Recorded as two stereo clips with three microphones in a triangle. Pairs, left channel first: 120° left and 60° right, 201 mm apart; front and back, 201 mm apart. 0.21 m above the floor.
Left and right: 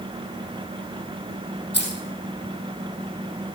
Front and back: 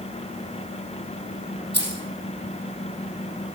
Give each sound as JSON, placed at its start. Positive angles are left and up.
{"t": 1.7, "sound": "keys jangling", "azimuth_deg": 150, "distance_m": 4.0}